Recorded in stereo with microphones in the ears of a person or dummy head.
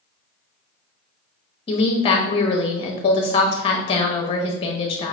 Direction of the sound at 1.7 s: 35° left (ahead or behind).